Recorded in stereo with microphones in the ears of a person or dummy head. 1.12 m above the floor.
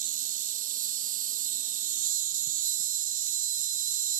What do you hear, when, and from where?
0.0 s an insect: 45° right (ahead or behind)